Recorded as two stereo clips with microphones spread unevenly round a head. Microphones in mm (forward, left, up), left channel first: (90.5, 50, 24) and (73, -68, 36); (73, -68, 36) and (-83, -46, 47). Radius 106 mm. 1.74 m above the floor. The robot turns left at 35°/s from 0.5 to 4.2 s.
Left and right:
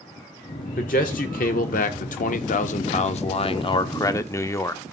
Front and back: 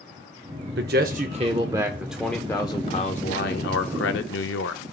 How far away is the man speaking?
About 0.6 m.